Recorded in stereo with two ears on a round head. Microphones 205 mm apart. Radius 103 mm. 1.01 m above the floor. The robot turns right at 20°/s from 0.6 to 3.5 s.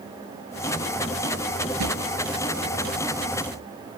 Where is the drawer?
85° right; by 2.0 s 90° right.